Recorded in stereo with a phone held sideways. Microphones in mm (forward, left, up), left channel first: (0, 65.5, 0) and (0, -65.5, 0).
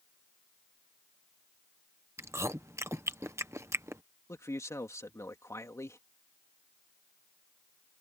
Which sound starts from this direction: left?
A man speaking, at 4.3 s.